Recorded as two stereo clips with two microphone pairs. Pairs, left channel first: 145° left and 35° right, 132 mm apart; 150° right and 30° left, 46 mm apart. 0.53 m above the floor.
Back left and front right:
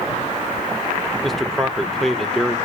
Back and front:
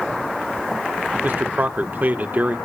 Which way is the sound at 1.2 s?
60° left.